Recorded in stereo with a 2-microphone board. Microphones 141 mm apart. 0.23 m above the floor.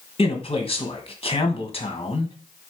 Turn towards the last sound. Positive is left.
turn(degrees=45)  # may be behind; listen again after turning